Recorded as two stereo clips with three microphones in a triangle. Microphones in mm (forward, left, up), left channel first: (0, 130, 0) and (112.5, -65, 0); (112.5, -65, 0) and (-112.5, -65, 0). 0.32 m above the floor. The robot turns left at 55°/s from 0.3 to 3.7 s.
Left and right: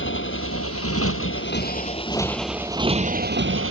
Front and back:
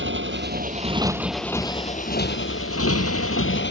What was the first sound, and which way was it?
A motorcycle, 150° left.